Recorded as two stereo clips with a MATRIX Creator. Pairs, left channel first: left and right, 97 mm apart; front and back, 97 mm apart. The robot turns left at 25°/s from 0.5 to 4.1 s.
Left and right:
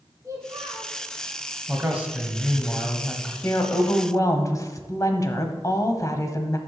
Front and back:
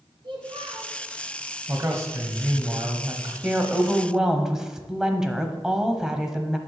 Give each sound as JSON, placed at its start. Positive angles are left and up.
{"t": 0.2, "sound": "a child speaking", "azimuth_deg": -145, "distance_m": 2.0}
{"t": 1.7, "sound": "a man speaking", "azimuth_deg": -150, "distance_m": 1.3}
{"t": 3.4, "sound": "a woman speaking", "azimuth_deg": 115, "distance_m": 1.0}